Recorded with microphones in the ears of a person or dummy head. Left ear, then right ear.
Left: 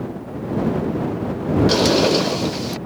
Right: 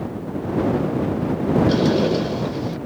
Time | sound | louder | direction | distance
1.7 | a sliding door | left 3 dB | 35° left (ahead or behind) | ?